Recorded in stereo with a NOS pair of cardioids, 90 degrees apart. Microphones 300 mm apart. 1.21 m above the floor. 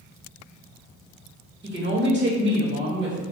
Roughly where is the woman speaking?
Ahead right.